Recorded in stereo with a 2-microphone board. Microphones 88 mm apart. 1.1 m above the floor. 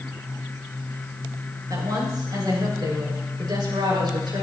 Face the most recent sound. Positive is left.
turn(degrees=-65)  # may be behind; listen again after turning